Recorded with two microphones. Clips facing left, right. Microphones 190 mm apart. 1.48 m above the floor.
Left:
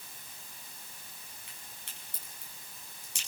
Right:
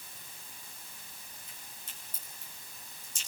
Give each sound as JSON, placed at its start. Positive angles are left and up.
{"t": 1.5, "sound": "a crack", "side_deg": 75, "distance_m": 9.0}